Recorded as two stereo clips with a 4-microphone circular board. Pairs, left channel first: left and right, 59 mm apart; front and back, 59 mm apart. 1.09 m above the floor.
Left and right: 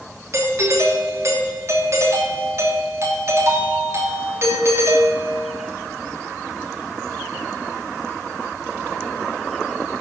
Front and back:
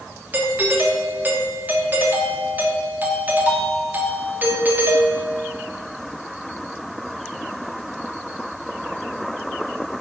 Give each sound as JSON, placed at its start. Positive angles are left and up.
{"t": 0.3, "sound": "a doorbell", "azimuth_deg": -125, "distance_m": 2.5}